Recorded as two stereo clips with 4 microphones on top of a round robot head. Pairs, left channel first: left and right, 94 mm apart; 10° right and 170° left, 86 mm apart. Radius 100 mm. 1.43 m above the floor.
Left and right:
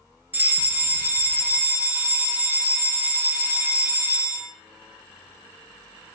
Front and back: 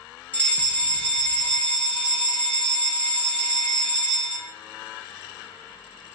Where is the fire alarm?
55° right, 0.8 m.